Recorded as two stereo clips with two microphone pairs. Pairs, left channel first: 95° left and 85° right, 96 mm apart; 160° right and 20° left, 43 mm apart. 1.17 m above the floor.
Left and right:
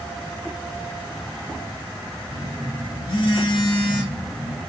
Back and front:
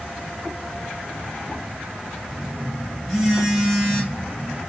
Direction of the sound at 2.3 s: 110° left.